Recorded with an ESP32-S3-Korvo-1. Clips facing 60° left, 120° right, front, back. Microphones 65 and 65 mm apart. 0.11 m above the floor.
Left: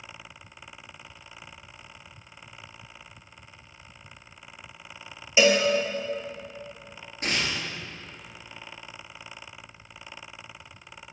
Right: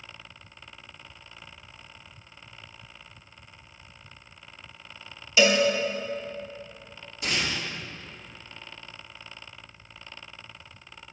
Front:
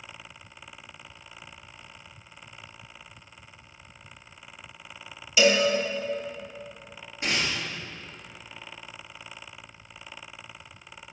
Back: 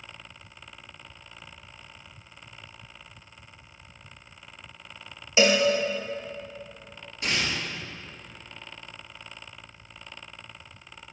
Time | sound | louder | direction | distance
5.4 | a cowbell | left 1 dB, even | 120° left | 1.4 m
7.2 | tearing paper | left 1 dB, even | 55° left | 2.5 m